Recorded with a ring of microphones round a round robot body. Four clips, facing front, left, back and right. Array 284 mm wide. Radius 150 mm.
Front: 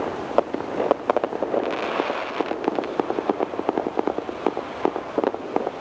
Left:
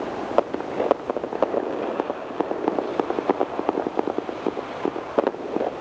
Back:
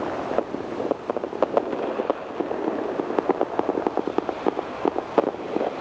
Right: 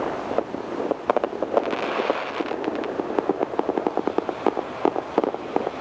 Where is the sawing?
I don't hear sawing.